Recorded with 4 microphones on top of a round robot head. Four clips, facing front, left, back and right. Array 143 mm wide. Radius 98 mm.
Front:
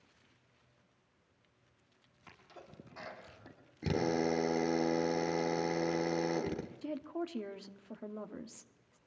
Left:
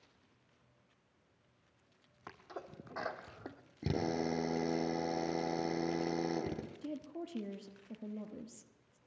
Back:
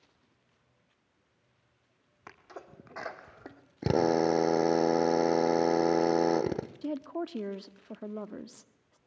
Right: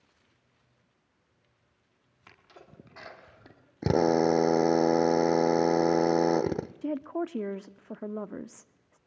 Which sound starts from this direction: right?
A woman speaking, at 6.8 s.